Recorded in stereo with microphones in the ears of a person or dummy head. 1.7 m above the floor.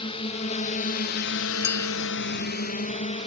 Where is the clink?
60° left (ahead or behind).